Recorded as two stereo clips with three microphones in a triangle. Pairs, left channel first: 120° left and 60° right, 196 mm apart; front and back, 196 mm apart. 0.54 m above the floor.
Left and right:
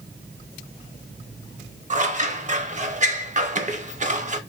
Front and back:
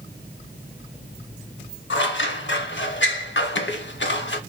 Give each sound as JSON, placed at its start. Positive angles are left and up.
{"t": 1.9, "sound": "scissors", "azimuth_deg": -10, "distance_m": 0.5}